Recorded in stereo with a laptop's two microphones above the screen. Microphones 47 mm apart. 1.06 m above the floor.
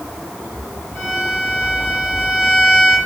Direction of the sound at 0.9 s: 35° left (ahead or behind).